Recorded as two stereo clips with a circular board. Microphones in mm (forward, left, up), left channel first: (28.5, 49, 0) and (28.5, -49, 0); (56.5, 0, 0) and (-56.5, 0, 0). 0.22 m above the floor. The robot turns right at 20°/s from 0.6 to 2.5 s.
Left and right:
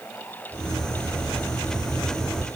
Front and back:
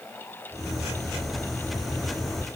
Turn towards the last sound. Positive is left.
No sound to turn to.